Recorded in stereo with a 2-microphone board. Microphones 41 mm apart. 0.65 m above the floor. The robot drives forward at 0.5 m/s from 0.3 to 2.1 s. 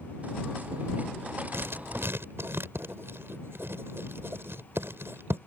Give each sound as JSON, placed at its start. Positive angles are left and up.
{"t": 1.5, "sound": "writing", "side_deg": -70}